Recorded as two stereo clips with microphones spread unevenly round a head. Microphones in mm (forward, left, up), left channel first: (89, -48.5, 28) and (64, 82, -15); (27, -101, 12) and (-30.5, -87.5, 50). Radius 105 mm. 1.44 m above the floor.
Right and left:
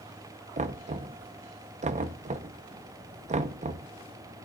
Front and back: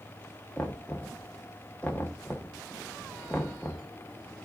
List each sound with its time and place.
0.6 s knocking: 65° left, 1.1 m